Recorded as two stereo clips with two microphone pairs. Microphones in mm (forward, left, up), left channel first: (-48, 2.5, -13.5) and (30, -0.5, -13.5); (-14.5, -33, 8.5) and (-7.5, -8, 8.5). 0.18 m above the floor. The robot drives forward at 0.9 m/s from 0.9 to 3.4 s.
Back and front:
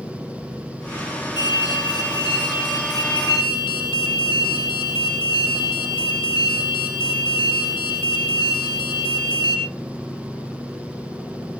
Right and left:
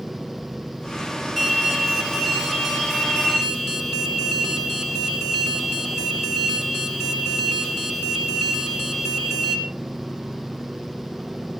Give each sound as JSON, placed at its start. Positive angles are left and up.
{"t": 1.4, "sound": "an alarm", "azimuth_deg": 175, "distance_m": 6.0}